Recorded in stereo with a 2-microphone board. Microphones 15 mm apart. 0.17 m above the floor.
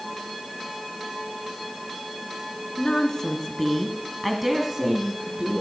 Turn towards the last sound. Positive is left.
turn(degrees=-50)  # may be behind; listen again after turning